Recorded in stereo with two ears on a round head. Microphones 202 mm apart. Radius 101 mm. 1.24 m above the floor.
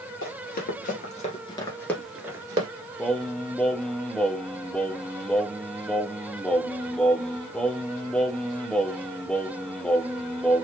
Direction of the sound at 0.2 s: 50° left (ahead or behind).